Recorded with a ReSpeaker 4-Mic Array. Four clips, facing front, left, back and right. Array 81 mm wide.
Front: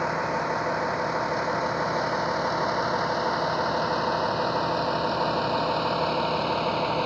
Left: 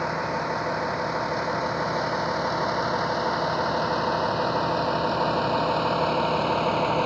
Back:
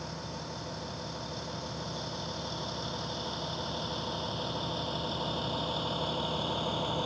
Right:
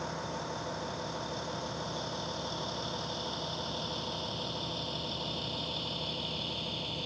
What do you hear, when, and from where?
0.0 s a vehicle: 35° left; by 7.1 s 60° left